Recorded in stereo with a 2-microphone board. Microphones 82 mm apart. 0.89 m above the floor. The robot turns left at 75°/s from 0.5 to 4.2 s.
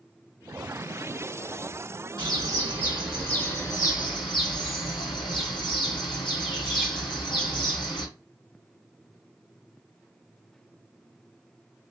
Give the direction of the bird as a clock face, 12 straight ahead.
4 o'clock.